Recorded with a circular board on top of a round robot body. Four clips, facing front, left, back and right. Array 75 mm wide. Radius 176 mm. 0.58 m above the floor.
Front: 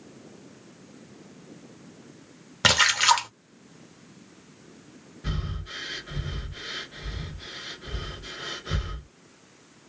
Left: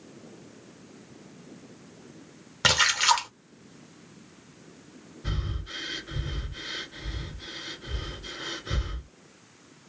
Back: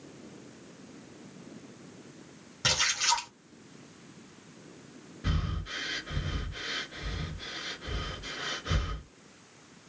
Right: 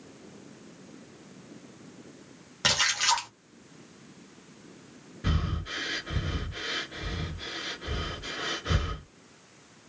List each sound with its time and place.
2.6 s a splash: 20° left, 0.7 m
5.2 s breathing: 100° right, 1.1 m